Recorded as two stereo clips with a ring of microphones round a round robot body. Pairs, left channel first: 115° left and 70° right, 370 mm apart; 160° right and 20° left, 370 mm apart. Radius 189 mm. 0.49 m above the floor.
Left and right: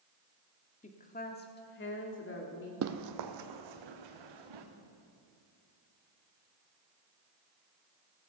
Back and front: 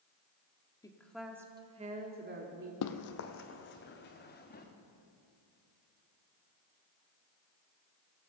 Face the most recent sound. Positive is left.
turn(degrees=-90)